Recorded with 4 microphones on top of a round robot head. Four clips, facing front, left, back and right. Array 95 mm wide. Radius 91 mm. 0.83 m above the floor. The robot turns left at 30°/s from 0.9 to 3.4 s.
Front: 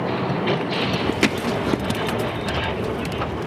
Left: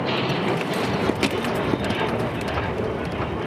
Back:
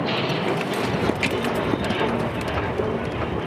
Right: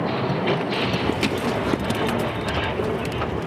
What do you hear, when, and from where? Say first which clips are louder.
1.2 s hammering: even, front 4 dB; 10° left, 1.2 m; by 1.4 s 5° left, 1.2 m